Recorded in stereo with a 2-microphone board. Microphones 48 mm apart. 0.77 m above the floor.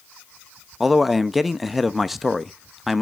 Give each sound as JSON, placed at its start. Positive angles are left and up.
{"t": 0.8, "sound": "a man speaking", "side_deg": 0, "distance_m": 0.6}